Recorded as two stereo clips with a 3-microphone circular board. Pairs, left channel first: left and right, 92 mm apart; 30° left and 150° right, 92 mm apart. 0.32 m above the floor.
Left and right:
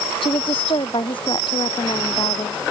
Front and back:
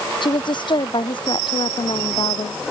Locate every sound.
0.2 s a woman speaking: 65° left; by 2.6 s 55° left